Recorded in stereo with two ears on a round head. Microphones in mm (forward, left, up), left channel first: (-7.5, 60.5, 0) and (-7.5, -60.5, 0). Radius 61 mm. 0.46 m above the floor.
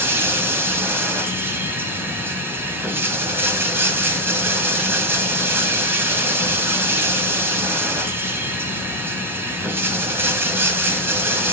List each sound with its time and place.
0.0 s running water: 15° right (ahead or behind), 2.5 m